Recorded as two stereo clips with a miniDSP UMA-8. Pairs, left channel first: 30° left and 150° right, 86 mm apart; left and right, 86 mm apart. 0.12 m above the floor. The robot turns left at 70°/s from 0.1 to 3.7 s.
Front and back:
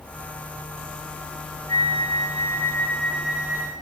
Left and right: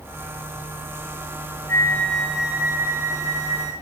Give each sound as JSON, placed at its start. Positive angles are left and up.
{"t": 1.7, "sound": "a flute", "azimuth_deg": 40, "distance_m": 2.0}